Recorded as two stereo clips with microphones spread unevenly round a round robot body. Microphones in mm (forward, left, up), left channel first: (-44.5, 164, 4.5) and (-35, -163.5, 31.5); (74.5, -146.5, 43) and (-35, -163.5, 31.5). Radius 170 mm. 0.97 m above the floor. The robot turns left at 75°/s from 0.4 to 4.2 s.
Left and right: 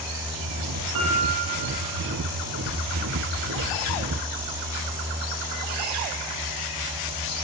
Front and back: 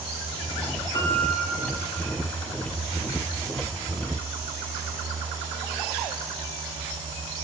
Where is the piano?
50° right, 7.5 m; by 2.1 s 135° right, 7.5 m.